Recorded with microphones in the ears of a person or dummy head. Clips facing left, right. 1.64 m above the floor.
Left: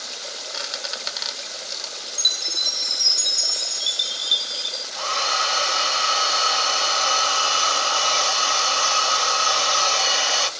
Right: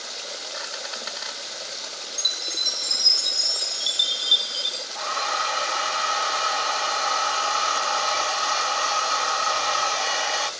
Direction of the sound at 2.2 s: Centre (ahead or behind).